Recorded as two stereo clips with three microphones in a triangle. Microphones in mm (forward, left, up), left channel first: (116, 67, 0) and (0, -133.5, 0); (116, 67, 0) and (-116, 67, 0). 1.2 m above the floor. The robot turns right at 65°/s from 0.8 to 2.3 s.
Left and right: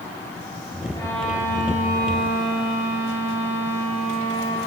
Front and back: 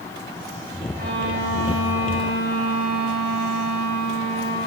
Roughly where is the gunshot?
No gunshot in this recording.